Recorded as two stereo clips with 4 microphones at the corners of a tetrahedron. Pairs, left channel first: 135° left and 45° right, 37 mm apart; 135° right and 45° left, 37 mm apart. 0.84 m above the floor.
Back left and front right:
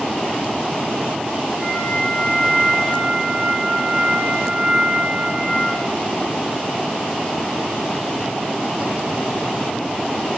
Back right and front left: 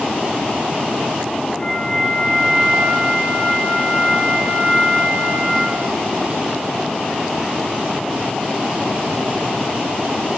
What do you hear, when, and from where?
1.6 s a flute: 105° right, 3.5 m